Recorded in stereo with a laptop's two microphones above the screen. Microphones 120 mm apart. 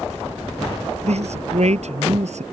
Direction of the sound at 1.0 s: 65° right (ahead or behind).